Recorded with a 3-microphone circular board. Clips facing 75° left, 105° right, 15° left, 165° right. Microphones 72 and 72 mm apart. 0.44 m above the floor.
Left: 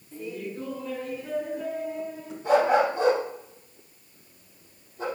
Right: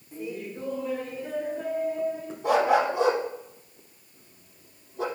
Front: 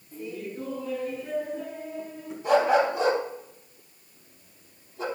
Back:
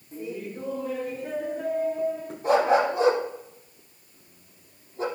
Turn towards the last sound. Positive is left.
turn(degrees=-115)